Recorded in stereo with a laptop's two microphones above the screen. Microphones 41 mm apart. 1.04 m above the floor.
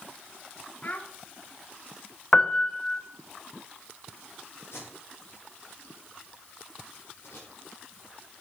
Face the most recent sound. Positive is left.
turn(degrees=70)  # may be behind; listen again after turning